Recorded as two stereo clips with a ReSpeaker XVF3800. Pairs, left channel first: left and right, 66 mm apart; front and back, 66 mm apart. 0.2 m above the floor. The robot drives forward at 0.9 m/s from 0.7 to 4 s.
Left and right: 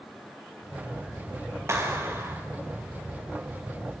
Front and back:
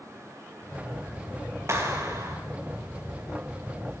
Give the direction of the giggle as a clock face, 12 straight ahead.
No giggle in this recording.